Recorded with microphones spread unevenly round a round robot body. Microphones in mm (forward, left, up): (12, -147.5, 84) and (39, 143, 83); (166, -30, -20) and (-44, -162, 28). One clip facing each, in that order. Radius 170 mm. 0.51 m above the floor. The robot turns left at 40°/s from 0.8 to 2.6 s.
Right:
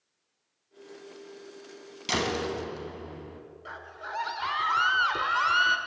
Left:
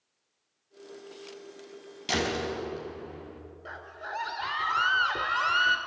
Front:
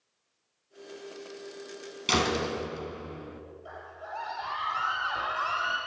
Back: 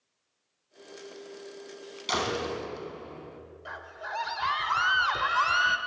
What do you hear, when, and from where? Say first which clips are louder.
2.1 s a door slam: even, front 3 dB; 15° right, 4 m; by 3.4 s 35° right, 4 m
3.6 s a scream: left 1 dB, even; straight behind, 1.7 m